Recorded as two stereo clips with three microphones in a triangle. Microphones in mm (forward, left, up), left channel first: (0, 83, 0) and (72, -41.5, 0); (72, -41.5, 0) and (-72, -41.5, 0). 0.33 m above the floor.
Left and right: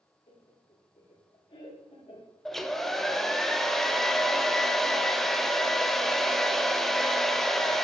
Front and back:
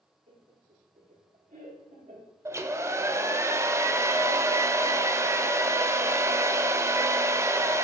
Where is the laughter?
170° left, 4 m.